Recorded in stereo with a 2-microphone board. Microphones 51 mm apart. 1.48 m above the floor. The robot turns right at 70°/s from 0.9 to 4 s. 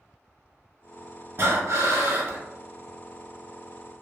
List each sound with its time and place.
1.4 s breathing: 120° right, 0.7 m; by 2.4 s 50° right, 0.7 m